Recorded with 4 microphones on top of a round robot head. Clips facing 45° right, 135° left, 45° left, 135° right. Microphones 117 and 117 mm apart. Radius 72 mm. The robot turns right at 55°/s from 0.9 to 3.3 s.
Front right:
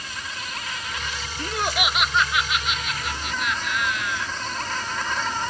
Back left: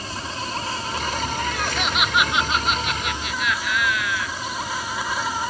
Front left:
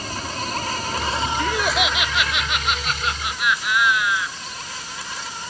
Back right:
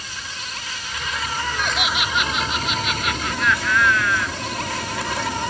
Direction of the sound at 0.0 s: 85° left.